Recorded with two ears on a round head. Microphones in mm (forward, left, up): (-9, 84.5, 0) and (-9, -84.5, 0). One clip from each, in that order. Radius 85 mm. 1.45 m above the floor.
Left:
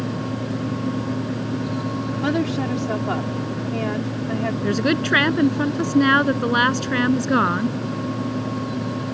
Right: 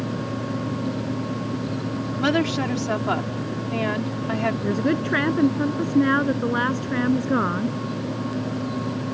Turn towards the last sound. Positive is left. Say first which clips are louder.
# left 2 dB
turn(degrees=70)  # may be behind; listen again after turning